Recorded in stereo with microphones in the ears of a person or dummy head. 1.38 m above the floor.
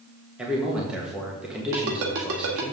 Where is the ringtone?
65° right (ahead or behind), 1.9 m.